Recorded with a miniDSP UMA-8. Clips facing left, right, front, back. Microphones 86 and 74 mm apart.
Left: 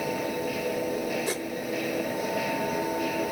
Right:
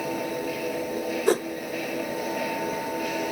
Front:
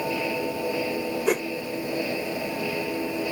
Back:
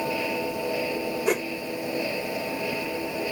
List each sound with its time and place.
1.3 s a whoosh: 90° right